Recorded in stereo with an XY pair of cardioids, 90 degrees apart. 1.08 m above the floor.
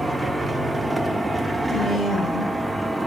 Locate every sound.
0.0 s a machine running: 10° right, 1.5 m
1.7 s a woman speaking: 70° left, 6.5 m